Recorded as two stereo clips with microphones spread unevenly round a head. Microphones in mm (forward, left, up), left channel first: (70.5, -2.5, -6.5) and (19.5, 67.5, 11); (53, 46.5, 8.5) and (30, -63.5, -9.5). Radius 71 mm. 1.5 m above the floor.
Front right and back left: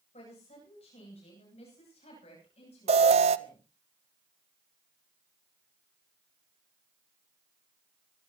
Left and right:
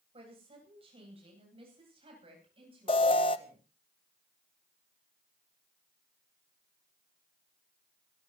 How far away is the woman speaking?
About 9.5 m.